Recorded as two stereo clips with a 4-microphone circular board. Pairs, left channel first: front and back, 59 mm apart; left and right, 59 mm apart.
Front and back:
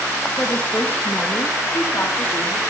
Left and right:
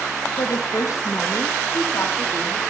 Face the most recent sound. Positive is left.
turn(degrees=40)